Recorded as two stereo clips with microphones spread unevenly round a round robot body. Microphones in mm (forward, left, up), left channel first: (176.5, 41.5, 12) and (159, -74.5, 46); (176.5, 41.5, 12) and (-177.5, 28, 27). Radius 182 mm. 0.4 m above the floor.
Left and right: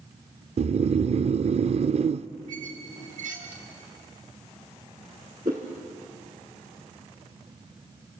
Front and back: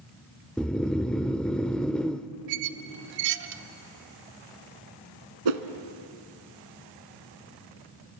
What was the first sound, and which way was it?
Snoring, 80° right.